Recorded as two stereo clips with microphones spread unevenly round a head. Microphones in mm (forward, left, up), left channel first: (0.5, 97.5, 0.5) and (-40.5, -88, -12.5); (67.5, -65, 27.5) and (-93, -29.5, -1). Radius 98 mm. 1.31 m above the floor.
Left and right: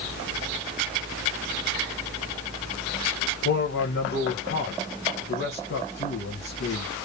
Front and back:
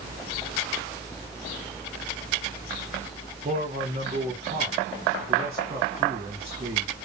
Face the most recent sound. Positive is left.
turn(degrees=110)